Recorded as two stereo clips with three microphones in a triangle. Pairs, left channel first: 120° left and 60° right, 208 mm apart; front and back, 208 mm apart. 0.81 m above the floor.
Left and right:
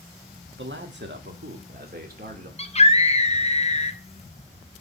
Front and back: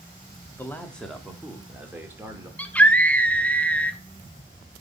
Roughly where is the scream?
Left.